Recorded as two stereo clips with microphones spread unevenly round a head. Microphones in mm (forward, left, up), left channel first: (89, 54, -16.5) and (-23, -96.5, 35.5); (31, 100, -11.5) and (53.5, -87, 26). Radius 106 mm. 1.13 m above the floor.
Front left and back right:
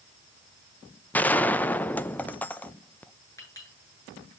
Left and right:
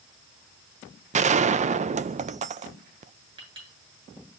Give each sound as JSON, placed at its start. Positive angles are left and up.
{"t": 1.1, "sound": "a gunshot", "azimuth_deg": -25, "distance_m": 0.6}
{"t": 3.4, "sound": "a clink", "azimuth_deg": -20, "distance_m": 8.5}